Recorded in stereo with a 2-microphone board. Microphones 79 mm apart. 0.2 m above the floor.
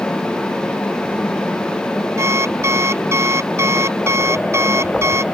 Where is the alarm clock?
35° right (ahead or behind).